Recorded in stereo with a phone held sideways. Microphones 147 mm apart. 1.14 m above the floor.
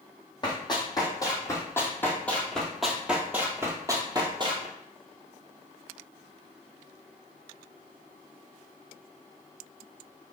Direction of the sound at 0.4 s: 30° left (ahead or behind).